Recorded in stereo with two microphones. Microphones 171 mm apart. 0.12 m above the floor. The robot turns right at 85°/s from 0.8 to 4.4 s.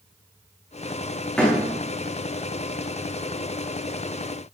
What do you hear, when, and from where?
1.4 s a door slam: 5° left (ahead or behind), 9 m; by 1.6 s 25° left (ahead or behind), 9 m